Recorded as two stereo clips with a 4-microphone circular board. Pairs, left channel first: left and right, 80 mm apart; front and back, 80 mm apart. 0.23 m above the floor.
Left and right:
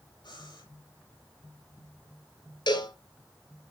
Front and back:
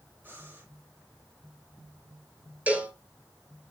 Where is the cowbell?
110° left, 2.5 m.